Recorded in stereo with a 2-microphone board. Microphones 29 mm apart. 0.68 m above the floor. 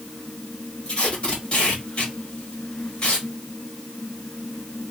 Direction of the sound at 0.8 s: 35° left (ahead or behind).